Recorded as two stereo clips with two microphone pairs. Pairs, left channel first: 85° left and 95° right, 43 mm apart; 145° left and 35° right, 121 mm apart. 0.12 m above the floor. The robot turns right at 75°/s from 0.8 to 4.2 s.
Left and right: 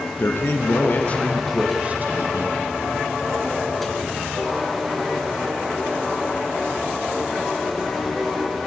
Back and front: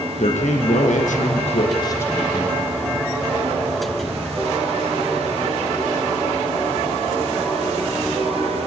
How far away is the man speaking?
About 4.5 m.